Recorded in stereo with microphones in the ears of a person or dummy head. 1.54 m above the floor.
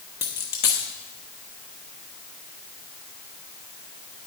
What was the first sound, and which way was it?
A dropped coin, 20° left (ahead or behind).